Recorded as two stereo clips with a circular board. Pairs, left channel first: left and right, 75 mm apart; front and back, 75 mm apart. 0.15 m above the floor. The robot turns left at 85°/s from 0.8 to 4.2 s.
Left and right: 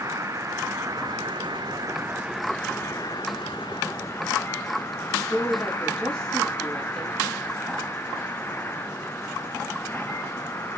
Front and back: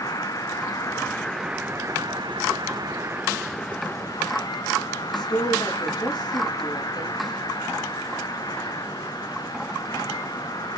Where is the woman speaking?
10° left, 3.5 m.